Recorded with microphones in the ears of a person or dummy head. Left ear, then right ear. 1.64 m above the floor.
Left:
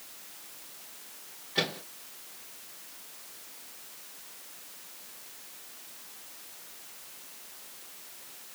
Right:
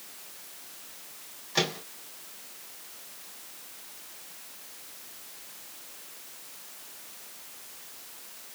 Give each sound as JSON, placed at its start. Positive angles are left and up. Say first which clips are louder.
{"t": 1.6, "sound": "a microwave", "louder": "right 2 dB", "side_deg": -85, "distance_m": 3.0}